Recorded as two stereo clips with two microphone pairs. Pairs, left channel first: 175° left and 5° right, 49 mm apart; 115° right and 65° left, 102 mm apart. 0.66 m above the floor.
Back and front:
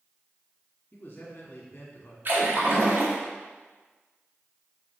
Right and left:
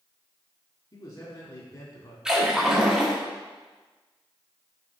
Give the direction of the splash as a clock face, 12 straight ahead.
1 o'clock.